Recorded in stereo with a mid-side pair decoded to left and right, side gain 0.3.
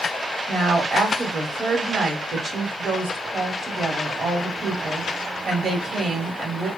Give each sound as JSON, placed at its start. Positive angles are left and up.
{"t": 0.5, "sound": "a woman speaking", "azimuth_deg": -65, "distance_m": 1.5}